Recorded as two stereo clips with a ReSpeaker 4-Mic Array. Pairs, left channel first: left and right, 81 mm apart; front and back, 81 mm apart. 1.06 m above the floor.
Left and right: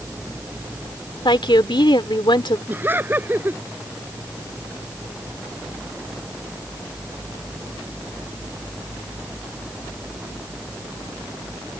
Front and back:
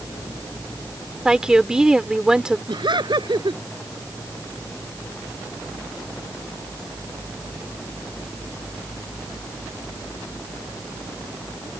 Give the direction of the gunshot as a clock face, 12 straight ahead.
No gunshot in this recording.